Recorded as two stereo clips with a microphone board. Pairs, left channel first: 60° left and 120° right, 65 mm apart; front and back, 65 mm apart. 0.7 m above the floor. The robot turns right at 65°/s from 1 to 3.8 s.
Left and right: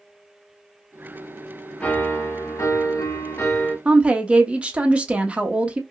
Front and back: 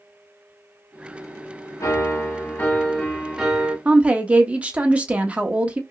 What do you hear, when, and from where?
1.8 s a piano: 5° right, 0.9 m; by 3.8 s 120° left, 0.9 m
3.9 s a woman speaking: 155° right, 0.6 m